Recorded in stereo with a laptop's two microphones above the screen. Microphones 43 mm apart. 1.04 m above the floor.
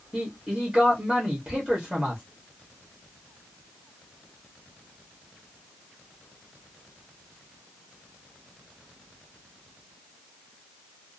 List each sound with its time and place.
0.1 s a man speaking: 25° right (ahead or behind), 0.9 m